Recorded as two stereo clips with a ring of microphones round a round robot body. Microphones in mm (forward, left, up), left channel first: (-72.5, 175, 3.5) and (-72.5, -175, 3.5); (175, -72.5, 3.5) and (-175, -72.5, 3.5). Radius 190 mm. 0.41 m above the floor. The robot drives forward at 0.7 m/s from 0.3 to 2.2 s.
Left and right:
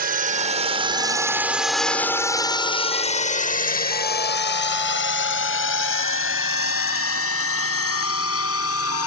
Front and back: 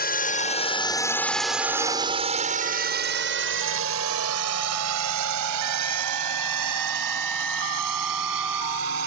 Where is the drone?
45° right; by 9.1 s 140° left.